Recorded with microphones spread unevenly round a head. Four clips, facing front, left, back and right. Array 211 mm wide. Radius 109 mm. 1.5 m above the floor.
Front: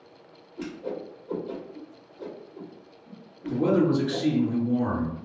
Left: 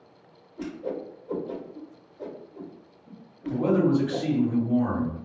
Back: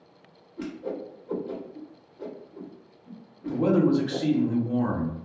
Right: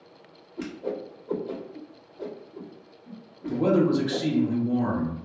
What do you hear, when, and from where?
0.6 s a whoosh: 95° right, 1.1 m
3.5 s a man speaking: 135° right, 1.1 m